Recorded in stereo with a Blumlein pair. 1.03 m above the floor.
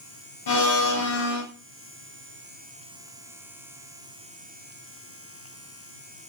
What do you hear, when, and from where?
0.5 s a blender: 55° left, 0.8 m